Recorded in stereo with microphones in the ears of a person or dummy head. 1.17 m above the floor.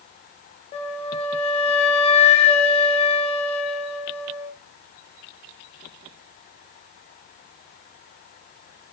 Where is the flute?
35° left (ahead or behind), 0.5 m.